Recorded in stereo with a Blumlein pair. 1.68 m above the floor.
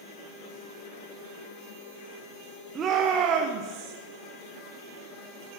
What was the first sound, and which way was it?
A shout, 20° right.